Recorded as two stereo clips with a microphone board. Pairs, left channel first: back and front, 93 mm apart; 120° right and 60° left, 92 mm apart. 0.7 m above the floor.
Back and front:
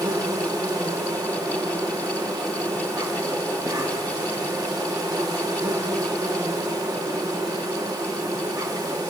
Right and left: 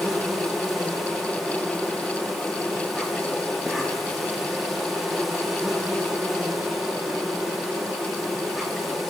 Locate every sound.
0.0 s an insect: 30° right, 1.6 m